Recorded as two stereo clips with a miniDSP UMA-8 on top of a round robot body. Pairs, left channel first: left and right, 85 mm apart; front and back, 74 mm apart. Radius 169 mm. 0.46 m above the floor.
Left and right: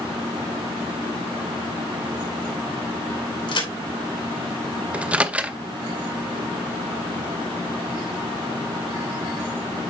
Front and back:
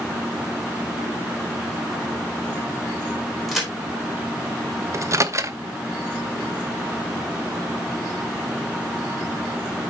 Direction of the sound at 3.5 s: 95° left.